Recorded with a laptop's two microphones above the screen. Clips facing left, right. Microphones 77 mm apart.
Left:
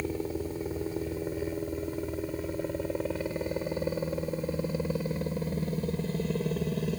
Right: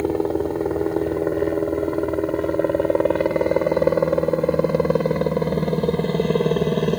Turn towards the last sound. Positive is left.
turn(degrees=-70)  # may be behind; listen again after turning